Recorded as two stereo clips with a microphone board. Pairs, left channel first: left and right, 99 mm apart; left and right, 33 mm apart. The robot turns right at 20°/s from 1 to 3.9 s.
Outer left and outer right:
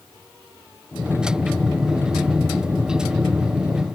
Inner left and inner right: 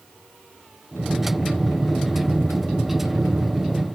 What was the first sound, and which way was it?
Only background noise.